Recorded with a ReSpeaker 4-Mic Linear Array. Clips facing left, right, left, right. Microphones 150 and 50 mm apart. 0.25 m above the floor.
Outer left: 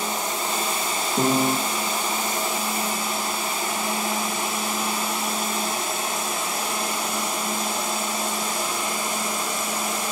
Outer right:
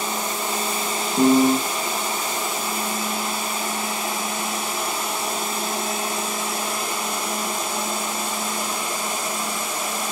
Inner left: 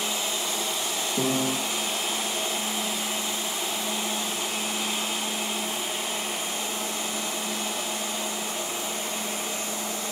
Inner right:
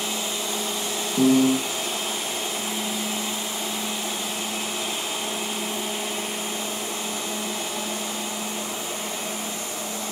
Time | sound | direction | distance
1.2 | a piano | centre (ahead or behind) | 0.7 m